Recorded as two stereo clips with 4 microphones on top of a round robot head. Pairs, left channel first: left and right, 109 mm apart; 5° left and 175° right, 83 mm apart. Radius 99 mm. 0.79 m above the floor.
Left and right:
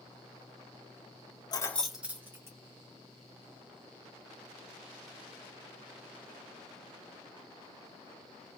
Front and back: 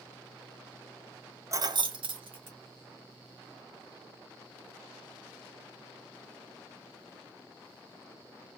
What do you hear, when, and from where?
1.5 s keys jangling: 135° left, 0.5 m; by 2.6 s 155° right, 1.5 m